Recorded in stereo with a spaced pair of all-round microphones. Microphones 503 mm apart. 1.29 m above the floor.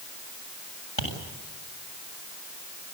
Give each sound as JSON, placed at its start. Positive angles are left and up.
{"t": 1.0, "sound": "tapping", "side_deg": 60, "distance_m": 7.5}